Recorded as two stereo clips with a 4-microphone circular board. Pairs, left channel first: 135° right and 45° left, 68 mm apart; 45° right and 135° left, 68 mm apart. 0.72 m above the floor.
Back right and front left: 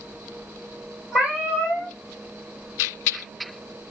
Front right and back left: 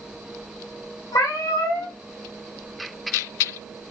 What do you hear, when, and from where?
1.1 s a cat meowing: 30° right, 1.1 m